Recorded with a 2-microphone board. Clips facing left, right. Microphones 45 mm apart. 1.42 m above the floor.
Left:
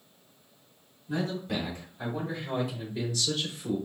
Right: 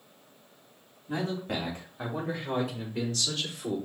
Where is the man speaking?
35° right (ahead or behind), 2.5 m; by 3.8 s 65° right (ahead or behind), 4.5 m.